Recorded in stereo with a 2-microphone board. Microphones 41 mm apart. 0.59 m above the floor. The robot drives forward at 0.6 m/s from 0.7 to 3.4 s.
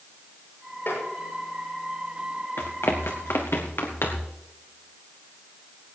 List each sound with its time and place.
0.9 s tapping: 60° left (ahead or behind), 8 m
2.6 s running footsteps: 75° left (ahead or behind), 2 m; by 4.3 s 70° left (ahead or behind), 3.5 m